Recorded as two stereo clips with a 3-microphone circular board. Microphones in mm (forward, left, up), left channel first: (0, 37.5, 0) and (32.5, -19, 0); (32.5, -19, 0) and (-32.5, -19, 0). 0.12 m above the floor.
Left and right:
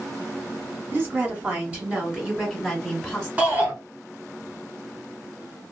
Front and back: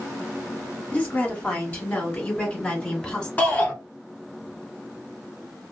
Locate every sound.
0.9 s a woman speaking: 40° right, 1.9 m; by 3.3 s 50° left, 1.7 m
3.4 s a shout: 25° right, 1.2 m